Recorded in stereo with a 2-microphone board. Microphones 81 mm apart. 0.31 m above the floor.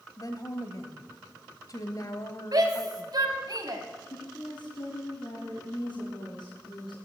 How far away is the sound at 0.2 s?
About 1.3 m.